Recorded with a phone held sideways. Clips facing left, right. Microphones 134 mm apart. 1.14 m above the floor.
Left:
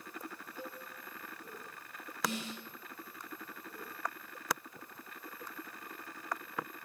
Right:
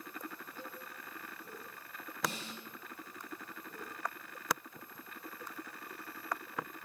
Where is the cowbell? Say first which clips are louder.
Left 3 dB; 15° left (ahead or behind), 2 m.